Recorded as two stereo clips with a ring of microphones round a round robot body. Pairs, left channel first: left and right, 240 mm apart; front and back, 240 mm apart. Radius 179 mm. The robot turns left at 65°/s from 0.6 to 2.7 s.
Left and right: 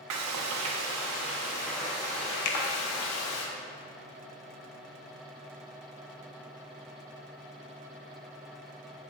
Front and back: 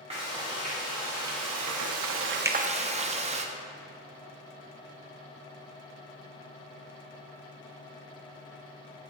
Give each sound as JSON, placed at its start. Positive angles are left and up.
{"t": 0.1, "sound": "frying", "azimuth_deg": -105, "distance_m": 0.6}
{"t": 2.5, "sound": "a finger snap", "azimuth_deg": 100, "distance_m": 0.6}